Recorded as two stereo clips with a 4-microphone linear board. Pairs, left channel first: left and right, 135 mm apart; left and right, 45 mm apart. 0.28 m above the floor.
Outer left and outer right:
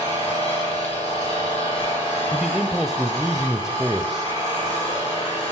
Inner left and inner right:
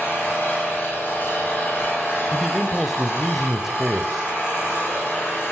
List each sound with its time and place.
0.0 s an engine running: 50° left (ahead or behind), 9.5 m
2.3 s a man speaking: 5° right (ahead or behind), 1.1 m